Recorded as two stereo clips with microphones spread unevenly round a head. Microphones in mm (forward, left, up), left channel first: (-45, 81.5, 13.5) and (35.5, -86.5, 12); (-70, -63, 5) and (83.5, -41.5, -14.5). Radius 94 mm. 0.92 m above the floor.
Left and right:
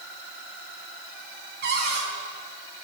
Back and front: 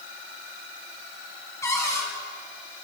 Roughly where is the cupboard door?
Right.